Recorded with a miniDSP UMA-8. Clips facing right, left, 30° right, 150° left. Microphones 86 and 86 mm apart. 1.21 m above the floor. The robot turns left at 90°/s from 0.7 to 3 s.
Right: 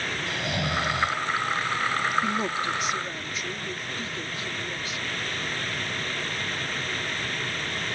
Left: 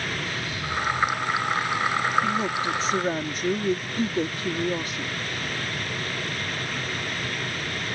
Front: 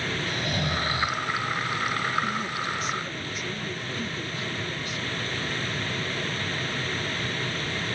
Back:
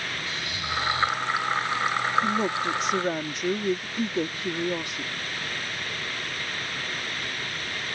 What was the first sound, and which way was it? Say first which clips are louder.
Snoring: right 2 dB, front 4 dB; 70° right.